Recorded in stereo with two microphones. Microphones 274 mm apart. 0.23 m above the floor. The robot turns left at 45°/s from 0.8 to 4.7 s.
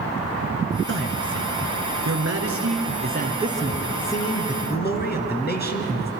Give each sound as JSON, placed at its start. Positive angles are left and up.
{"t": 0.9, "sound": "a man speaking", "azimuth_deg": -45, "distance_m": 3.0}